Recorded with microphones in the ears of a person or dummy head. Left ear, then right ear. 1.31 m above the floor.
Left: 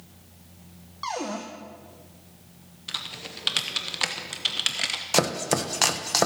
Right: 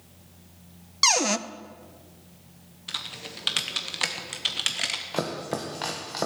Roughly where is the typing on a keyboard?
Centre.